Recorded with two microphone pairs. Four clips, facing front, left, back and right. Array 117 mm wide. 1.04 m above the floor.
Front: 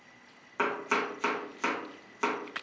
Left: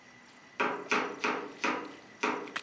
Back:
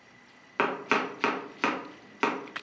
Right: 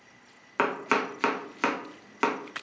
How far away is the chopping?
About 0.5 m.